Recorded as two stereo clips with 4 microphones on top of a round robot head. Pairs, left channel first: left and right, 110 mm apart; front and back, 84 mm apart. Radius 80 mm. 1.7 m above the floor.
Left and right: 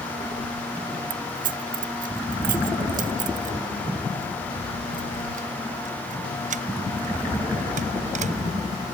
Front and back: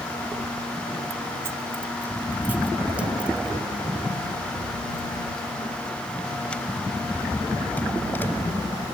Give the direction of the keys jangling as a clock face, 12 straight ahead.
4 o'clock.